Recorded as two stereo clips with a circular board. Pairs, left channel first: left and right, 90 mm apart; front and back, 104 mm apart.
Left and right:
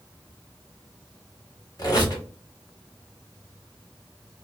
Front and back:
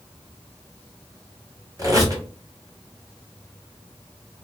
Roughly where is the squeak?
Behind left.